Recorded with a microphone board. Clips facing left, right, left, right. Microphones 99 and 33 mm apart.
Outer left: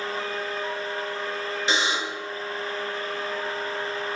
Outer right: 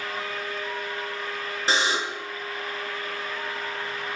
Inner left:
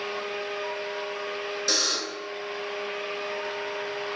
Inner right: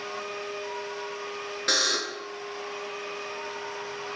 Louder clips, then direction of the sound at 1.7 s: Outer right 2 dB, inner right 3 dB; 35° right (ahead or behind).